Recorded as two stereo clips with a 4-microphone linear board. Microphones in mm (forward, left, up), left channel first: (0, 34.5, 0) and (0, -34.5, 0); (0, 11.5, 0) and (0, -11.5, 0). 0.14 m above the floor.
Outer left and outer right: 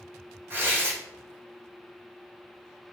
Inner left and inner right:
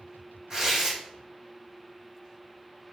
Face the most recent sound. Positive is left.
turn(degrees=-35)  # may be behind; listen again after turning